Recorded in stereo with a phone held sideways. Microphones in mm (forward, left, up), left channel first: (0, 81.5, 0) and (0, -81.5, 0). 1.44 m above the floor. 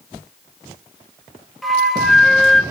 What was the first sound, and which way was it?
A flute, centre (ahead or behind).